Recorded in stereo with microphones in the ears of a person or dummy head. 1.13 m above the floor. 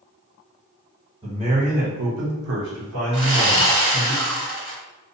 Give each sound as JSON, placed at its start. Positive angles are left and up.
{"t": 1.2, "sound": "a man speaking", "side_deg": -25, "distance_m": 1.0}
{"t": 3.1, "sound": "sawing", "side_deg": -65, "distance_m": 1.6}